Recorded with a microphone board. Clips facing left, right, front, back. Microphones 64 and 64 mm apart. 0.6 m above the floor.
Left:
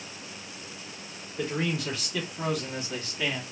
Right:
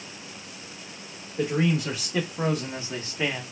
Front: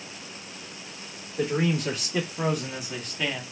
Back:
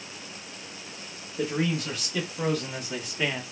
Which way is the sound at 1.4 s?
25° right.